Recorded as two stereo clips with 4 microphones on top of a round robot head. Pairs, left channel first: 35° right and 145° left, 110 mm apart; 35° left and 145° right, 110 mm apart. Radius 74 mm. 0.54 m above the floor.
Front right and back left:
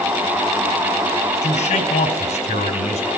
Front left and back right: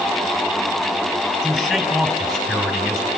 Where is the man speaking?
55° right, 4.5 m.